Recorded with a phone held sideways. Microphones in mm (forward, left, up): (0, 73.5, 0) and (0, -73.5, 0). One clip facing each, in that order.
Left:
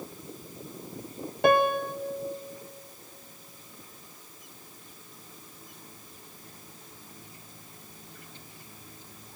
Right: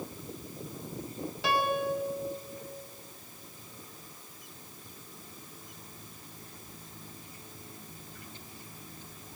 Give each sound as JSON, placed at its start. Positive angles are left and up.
{"t": 1.4, "sound": "a piano", "side_deg": 55, "distance_m": 0.7}